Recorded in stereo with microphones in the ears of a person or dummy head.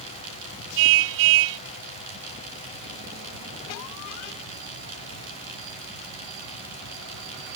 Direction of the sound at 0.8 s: 70° right (ahead or behind).